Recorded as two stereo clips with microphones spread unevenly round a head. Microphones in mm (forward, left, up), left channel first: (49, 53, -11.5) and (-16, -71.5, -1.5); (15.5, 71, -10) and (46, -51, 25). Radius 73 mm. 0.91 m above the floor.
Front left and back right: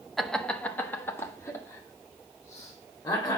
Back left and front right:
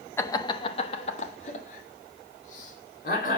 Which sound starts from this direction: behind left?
Laughter, at 0.2 s.